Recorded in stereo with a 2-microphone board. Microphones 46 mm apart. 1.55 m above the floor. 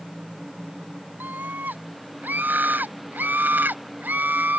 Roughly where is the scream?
Right.